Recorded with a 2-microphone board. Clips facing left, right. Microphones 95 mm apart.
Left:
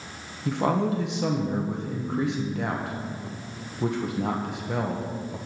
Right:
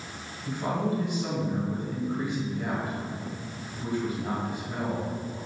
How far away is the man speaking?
About 1.5 m.